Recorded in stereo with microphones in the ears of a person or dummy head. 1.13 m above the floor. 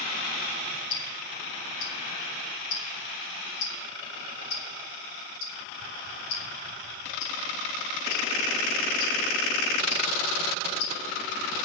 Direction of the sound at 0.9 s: 65° left (ahead or behind).